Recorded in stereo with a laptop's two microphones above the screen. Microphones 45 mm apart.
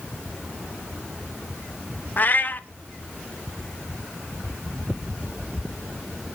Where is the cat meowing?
40° left (ahead or behind), 0.9 m.